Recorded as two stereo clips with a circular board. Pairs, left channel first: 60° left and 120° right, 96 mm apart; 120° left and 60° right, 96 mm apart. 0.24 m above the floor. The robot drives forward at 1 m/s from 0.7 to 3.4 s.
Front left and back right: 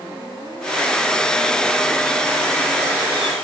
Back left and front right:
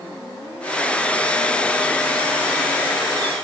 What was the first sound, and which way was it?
Only background noise.